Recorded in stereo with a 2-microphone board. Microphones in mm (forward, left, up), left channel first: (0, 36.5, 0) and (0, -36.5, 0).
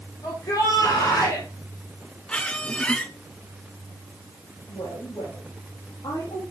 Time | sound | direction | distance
0.2 | a shout | 55° left (ahead or behind) | 3.5 m
2.3 | a squeak | 15° left (ahead or behind) | 1.0 m
4.7 | a woman speaking | 75° left (ahead or behind) | 5 m